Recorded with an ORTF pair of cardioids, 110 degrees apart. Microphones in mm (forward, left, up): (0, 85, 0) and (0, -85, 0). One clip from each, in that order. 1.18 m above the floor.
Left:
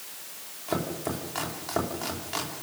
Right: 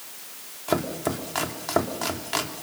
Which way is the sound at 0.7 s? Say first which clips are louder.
Right 5 dB; 35° right.